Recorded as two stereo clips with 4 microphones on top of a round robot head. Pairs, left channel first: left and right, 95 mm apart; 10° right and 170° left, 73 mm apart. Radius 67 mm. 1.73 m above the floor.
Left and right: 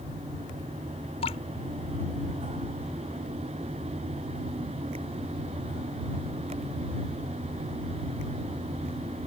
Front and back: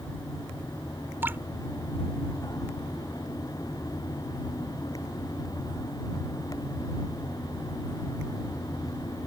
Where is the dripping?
110° left.